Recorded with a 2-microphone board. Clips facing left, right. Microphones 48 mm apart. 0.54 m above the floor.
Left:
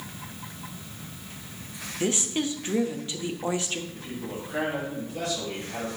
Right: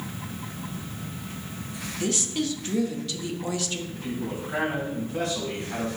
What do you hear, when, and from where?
2.0 s a woman speaking: 25° left (ahead or behind), 0.6 m
3.9 s a man speaking: 70° right (ahead or behind), 3 m